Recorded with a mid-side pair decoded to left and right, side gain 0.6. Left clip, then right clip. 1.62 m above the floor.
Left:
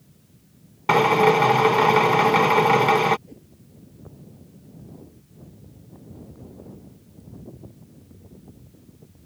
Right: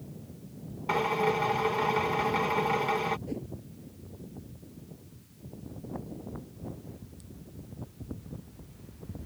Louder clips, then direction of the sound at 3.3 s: Right 10 dB; 40° right.